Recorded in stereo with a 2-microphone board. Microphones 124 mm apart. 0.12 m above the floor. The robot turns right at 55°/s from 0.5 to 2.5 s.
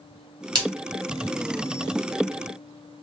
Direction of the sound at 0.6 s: 35° right (ahead or behind).